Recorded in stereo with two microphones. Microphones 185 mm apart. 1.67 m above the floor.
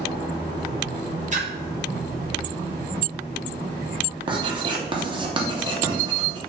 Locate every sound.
1.3 s a splash: 40° right (ahead or behind), 0.9 m
4.3 s writing: 25° right (ahead or behind), 0.7 m